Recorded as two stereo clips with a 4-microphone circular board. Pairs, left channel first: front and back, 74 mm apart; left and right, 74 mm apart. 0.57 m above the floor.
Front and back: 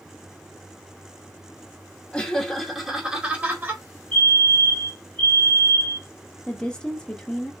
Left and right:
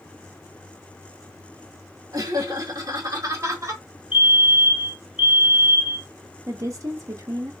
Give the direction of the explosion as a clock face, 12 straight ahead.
I don't hear an explosion.